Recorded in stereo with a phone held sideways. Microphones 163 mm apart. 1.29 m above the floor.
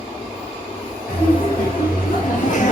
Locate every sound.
1.1 s laughter: 75° left (ahead or behind), 1.9 m; by 2.7 s 55° left (ahead or behind), 1.3 m